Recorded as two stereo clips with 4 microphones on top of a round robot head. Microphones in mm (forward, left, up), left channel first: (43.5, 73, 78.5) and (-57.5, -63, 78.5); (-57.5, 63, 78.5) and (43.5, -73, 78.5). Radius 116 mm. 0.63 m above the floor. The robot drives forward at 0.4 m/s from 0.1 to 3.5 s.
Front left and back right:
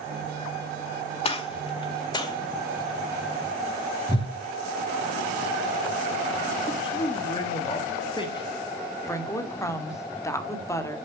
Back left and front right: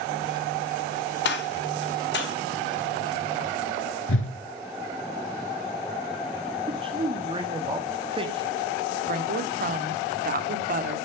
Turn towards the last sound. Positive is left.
turn(degrees=-20)